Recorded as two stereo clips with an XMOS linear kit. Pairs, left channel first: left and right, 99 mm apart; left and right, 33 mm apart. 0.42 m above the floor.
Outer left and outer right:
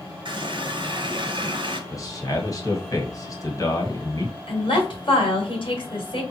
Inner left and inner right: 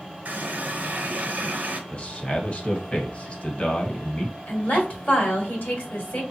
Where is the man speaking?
35° left (ahead or behind), 1.6 m.